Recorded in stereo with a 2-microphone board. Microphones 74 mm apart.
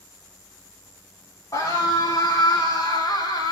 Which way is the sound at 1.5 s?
60° left (ahead or behind).